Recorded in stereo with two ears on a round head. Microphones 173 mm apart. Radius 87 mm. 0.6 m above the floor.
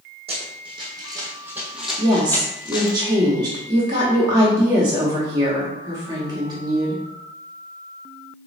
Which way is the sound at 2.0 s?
20° right (ahead or behind).